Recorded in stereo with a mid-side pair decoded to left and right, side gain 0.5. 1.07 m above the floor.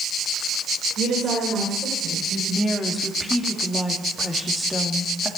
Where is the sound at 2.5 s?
5° right, 2.5 m.